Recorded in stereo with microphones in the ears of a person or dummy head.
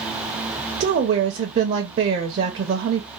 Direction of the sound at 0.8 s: 50° right (ahead or behind).